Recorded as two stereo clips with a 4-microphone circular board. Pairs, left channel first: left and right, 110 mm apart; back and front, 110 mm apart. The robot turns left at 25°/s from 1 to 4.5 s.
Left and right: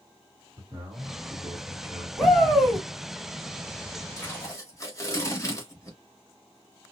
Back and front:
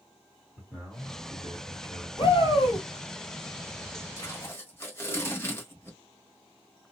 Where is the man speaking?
100° right, 1.6 m; by 2.1 s 130° right, 1.6 m.